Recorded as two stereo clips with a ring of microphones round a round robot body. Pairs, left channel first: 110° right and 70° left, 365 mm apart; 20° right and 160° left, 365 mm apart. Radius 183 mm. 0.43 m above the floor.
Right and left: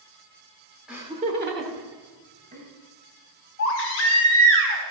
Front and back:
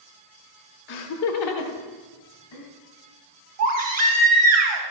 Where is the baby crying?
165° right, 2 m.